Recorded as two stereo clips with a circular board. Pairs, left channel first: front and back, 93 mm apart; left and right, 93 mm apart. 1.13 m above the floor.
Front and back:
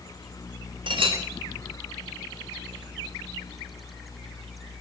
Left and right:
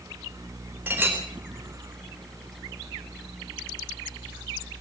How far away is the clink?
About 3.5 m.